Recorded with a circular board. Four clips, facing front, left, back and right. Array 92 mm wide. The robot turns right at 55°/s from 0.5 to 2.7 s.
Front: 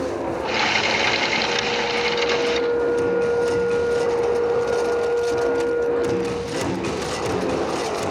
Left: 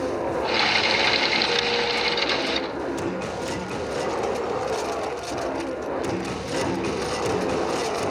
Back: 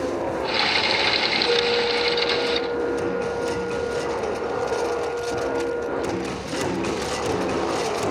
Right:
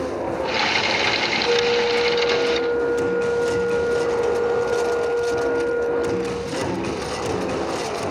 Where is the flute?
115° right, 3 m; by 6.7 s 45° right, 3 m.